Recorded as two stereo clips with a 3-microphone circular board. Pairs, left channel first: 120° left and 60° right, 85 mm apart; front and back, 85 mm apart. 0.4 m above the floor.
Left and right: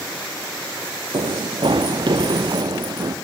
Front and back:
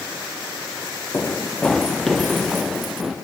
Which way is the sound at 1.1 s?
75° right.